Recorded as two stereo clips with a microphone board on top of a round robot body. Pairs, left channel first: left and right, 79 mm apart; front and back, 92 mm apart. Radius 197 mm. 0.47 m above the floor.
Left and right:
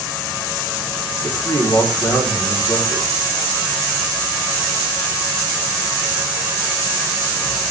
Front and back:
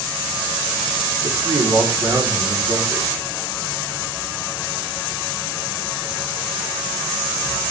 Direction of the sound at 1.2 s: 145° left.